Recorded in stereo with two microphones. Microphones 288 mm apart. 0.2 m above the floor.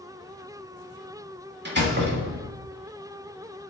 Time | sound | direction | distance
1.6 | a door slam | 35° right (ahead or behind) | 1.1 m